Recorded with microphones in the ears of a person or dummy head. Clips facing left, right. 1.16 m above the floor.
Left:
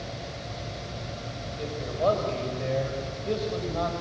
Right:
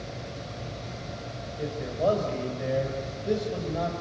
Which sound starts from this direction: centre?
A man speaking, at 1.6 s.